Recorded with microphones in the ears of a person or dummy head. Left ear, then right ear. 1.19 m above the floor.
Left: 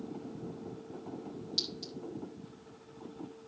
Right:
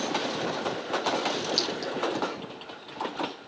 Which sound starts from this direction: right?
A clink, at 1.6 s.